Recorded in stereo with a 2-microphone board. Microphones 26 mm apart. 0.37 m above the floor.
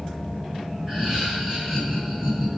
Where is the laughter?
25° right (ahead or behind), 2.5 m.